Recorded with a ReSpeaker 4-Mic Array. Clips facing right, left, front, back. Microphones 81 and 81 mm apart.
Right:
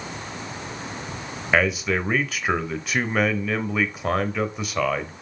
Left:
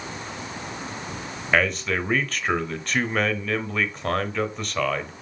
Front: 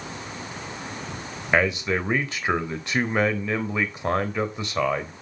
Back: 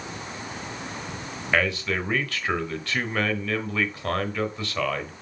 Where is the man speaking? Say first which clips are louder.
Right 1 dB, front 3 dB; 15° right, 0.9 m.